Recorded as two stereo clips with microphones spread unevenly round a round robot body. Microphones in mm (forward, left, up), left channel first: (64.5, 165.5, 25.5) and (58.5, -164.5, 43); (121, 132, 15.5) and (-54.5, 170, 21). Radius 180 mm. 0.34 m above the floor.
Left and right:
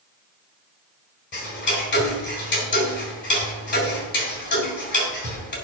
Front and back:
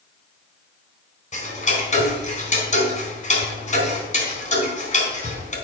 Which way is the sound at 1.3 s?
35° left.